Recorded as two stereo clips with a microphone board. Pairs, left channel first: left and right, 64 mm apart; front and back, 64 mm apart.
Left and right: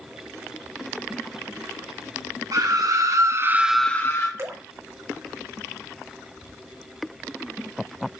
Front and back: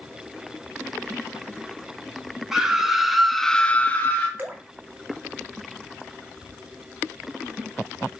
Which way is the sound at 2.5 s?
95° right.